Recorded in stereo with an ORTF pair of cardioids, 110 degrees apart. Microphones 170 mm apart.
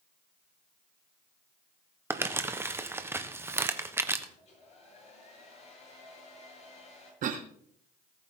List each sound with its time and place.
2.1 s crumpling: 15° right, 1.2 m
4.4 s a hair dryer: 45° left, 8 m
7.2 s a cough: 55° right, 1.2 m